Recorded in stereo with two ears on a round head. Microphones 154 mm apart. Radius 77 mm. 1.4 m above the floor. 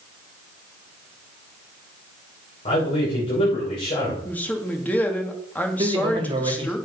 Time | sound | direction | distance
2.6 | a man speaking | 40° left (ahead or behind) | 6 m
4.2 | a man speaking | 10° left (ahead or behind) | 2 m
5.8 | a man speaking | 30° right (ahead or behind) | 3.5 m